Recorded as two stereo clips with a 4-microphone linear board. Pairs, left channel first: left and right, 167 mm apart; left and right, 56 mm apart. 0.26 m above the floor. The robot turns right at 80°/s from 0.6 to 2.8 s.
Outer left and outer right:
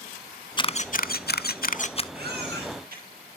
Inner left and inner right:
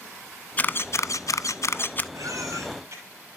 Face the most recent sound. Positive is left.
turn(degrees=-65)